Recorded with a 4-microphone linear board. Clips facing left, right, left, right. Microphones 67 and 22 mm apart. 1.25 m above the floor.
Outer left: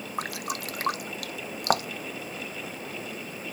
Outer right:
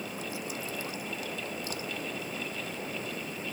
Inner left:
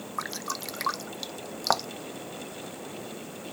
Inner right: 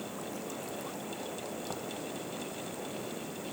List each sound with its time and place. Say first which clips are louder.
0.2 s dripping: outer left 4 dB, inner left 6 dB; 70° left (ahead or behind)